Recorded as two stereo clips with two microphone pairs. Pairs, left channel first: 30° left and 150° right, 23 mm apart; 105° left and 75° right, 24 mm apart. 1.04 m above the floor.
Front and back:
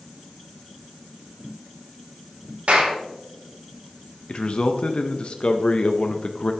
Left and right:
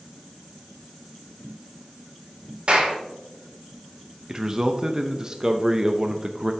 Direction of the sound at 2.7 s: 120° right.